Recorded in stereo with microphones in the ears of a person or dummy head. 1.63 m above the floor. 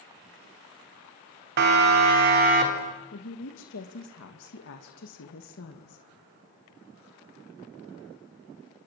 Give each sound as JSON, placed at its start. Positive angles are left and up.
{"t": 1.6, "sound": "a siren", "side_deg": -55, "distance_m": 4.0}
{"t": 3.1, "sound": "a woman speaking", "side_deg": 65, "distance_m": 2.5}